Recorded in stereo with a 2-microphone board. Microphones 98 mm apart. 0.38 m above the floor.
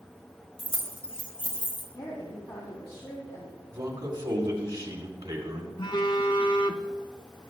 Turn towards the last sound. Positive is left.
turn(degrees=50)  # may be behind; listen again after turning